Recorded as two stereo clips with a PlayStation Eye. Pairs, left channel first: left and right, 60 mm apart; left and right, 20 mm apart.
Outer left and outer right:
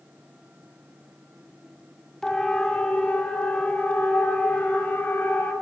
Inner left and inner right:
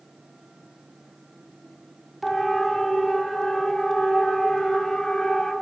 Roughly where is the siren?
Centre.